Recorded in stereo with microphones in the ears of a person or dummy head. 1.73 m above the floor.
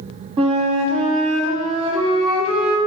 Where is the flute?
30° right (ahead or behind), 0.9 m.